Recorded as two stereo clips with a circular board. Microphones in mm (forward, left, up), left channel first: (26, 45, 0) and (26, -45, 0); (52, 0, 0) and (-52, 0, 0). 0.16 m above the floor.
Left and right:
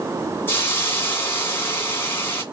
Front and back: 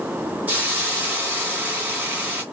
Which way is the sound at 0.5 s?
125° left.